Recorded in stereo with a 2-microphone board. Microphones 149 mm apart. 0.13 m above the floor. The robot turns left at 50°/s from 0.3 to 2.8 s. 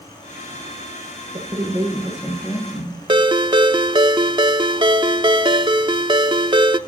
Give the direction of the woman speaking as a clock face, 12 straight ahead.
5 o'clock.